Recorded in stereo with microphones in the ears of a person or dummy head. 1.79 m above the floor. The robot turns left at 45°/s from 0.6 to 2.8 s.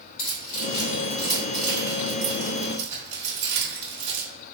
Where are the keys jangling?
40° left (ahead or behind), 1.9 m; by 4.3 s 50° right (ahead or behind), 1.9 m.